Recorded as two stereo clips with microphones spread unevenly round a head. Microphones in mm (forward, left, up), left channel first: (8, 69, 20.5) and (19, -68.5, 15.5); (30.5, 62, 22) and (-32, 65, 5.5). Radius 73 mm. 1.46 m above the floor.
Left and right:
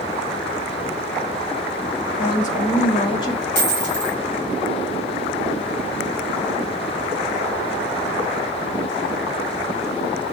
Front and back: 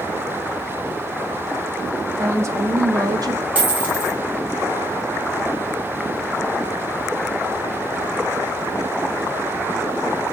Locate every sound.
2.2 s a woman speaking: 130° left, 2.5 m; by 3.5 s 165° left, 1.1 m
3.5 s a dropped coin: 110° left, 4 m